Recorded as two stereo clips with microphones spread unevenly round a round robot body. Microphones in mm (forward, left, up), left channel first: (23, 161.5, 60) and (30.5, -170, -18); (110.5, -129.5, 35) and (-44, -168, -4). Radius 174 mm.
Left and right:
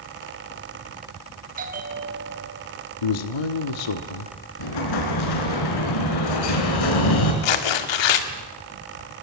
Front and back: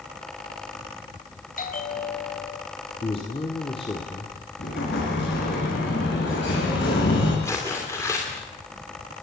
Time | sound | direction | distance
1.6 | a bell | 25° right | 3.5 m
3.0 | a man speaking | 90° left | 1.5 m
4.6 | an explosion | 70° left | 4.5 m
7.4 | tearing paper | 100° left | 2 m